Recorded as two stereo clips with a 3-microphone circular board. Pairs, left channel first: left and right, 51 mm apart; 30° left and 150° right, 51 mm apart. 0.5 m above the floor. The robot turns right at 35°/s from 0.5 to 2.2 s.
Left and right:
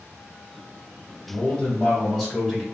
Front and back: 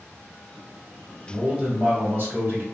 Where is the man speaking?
140° left, 2.0 m; by 2.6 s 170° left, 2.0 m.